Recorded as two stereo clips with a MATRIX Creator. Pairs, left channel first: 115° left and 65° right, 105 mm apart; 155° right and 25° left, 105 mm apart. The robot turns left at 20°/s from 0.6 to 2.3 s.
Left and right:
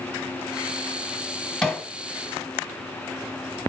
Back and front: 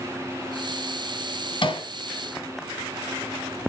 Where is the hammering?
160° right, 1.9 m; by 1.9 s 165° right, 1.9 m.